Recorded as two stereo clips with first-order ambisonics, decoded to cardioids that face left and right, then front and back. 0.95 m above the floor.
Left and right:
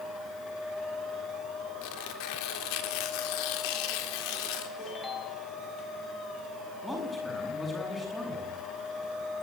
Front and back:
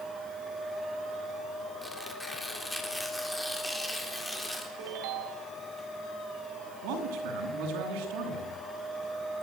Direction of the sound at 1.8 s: 85° left.